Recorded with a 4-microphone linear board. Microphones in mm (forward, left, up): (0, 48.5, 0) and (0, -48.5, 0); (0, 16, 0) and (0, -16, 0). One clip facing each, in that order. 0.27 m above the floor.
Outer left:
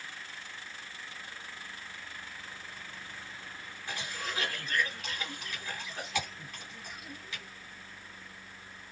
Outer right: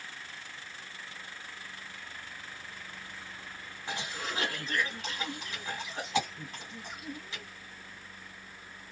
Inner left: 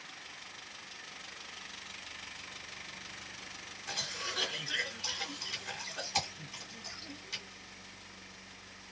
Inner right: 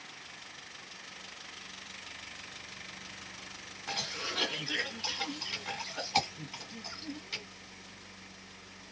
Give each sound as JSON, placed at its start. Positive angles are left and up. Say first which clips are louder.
{"t": 3.9, "sound": "a cough", "louder": "outer right 2 dB, inner right 2 dB", "side_deg": -25, "distance_m": 2.0}